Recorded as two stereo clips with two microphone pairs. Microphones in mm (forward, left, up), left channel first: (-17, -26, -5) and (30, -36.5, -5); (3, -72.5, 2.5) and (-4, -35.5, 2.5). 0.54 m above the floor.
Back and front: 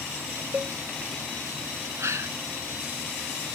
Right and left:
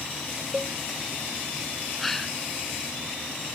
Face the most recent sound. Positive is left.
turn(degrees=5)